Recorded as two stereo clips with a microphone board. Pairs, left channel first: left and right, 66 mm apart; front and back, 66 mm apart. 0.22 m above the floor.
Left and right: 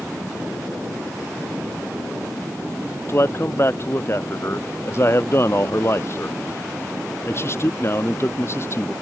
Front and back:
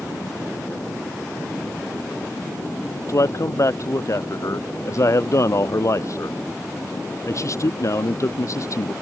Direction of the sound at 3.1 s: 40° left.